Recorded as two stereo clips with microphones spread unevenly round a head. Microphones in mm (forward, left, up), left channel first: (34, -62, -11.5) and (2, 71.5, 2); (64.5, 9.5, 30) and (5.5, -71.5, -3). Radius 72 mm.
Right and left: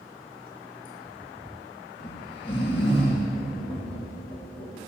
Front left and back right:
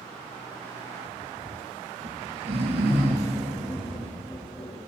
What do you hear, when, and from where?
2.0 s snoring: 130° right, 2.0 m
3.4 s tapping: 25° right, 3.5 m